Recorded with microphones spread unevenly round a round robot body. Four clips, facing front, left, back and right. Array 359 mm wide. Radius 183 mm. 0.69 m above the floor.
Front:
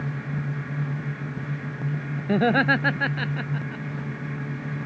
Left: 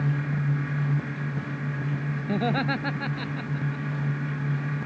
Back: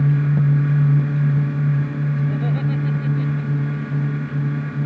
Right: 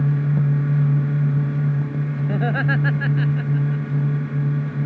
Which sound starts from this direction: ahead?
Laughter, at 2.3 s.